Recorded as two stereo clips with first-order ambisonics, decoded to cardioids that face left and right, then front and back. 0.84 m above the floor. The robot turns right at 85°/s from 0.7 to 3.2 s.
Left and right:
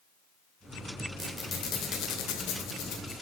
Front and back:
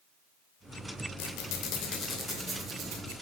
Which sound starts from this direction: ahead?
A squeak, at 1.2 s.